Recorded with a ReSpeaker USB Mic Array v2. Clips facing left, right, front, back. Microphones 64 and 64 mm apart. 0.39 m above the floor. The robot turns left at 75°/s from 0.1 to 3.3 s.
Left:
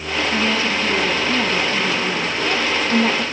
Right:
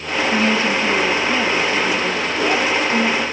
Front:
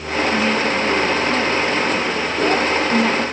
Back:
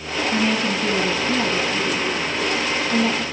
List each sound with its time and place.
0.3 s a woman speaking: 125° right, 3.5 m; by 3.2 s 15° left, 3.5 m